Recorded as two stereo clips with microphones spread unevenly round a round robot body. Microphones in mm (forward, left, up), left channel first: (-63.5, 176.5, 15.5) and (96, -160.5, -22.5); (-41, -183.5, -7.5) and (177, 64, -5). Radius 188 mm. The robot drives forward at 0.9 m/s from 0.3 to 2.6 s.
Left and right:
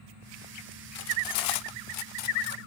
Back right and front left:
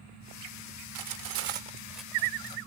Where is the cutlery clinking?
55° left; by 2.7 s 155° left.